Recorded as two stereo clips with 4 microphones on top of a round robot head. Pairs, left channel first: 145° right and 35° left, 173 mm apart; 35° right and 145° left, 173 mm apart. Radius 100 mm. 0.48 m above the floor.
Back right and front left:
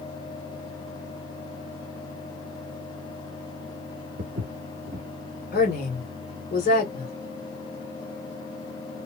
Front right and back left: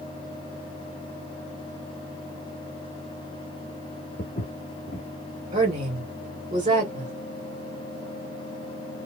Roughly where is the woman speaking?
Behind.